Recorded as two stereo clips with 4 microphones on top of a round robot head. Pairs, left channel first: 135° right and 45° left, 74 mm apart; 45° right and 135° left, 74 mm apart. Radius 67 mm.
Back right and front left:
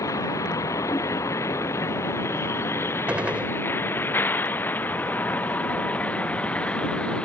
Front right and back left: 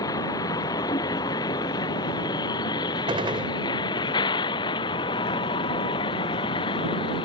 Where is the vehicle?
85° right; by 7.2 s 60° right.